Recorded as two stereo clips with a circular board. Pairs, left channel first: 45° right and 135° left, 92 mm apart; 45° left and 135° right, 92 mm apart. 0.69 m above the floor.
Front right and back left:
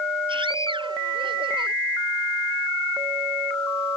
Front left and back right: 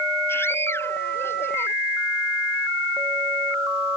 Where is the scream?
110° left.